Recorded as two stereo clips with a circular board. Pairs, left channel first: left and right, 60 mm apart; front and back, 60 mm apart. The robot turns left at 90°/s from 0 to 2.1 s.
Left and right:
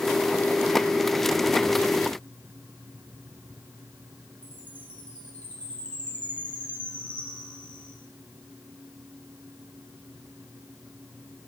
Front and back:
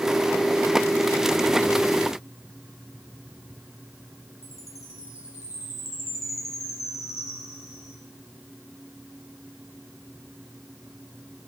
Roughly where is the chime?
Ahead left.